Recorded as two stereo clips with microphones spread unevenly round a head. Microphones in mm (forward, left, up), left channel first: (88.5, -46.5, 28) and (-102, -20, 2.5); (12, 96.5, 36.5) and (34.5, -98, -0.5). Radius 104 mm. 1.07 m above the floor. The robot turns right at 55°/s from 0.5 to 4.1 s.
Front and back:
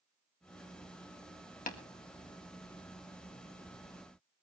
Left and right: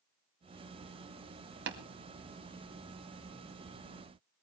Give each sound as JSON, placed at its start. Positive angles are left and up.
{"t": 1.7, "sound": "tapping", "azimuth_deg": -60, "distance_m": 2.0}